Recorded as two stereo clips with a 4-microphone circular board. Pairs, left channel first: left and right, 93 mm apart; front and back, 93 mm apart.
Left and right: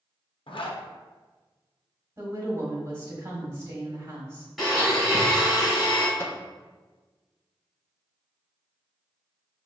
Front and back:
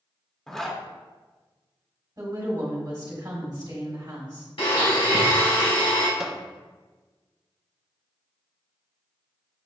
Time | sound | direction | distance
0.5 | a zipper | 85° left | 0.6 m
2.2 | a woman speaking | 140° right | 1.4 m
4.6 | a blender | straight ahead | 1.7 m
6.2 | a microwave | 100° left | 0.5 m